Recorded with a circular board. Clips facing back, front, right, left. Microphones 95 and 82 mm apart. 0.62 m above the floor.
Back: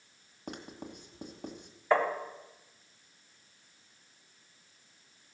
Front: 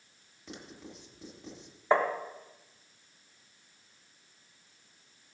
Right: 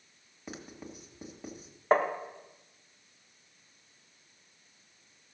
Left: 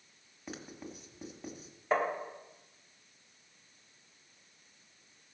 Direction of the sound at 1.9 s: 60° right.